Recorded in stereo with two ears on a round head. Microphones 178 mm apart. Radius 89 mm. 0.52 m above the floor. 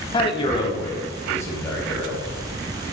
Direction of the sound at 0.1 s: 25° left (ahead or behind).